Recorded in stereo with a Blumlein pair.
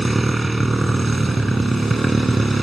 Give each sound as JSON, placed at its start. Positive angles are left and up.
{"t": 0.0, "sound": "a motorcycle", "azimuth_deg": -10}